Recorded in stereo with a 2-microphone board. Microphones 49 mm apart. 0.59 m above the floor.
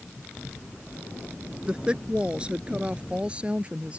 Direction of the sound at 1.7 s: 20° right (ahead or behind).